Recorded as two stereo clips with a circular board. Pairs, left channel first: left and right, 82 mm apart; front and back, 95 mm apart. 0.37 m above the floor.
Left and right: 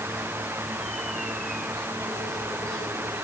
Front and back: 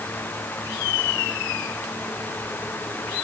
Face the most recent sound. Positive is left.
No sound to turn to.